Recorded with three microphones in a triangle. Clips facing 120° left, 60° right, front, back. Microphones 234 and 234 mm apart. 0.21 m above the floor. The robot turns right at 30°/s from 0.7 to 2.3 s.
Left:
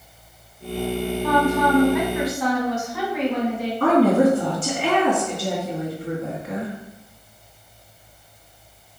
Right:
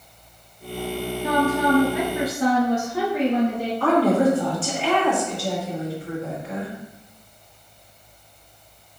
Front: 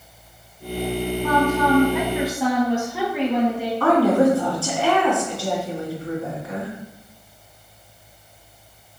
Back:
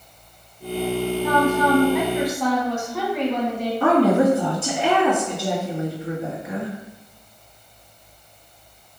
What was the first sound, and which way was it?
A woman speaking, 110° right.